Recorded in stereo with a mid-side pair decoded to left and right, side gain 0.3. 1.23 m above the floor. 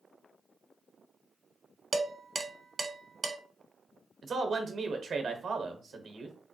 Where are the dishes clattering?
50° right, 1.0 m.